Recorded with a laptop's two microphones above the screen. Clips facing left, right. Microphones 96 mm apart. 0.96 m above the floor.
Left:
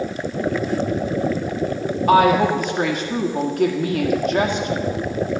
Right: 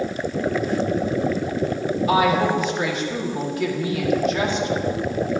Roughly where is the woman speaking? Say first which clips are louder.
Left 5 dB; left.